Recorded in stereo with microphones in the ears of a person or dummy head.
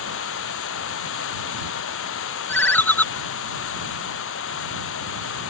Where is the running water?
70° left (ahead or behind).